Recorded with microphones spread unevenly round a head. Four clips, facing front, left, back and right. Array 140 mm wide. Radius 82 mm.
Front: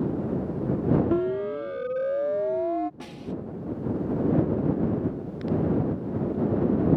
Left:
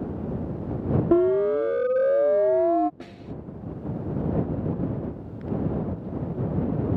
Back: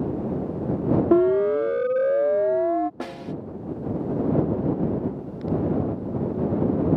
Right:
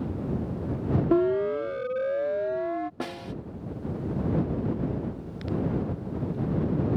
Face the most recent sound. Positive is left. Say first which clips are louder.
# right 5 dB, back 4 dB
turn(degrees=-160)